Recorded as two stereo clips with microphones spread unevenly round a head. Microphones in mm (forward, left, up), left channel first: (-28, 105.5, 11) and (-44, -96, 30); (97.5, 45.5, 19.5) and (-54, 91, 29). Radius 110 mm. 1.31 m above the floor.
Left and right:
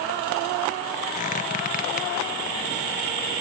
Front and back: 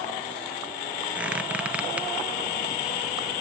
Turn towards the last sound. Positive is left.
turn(degrees=95)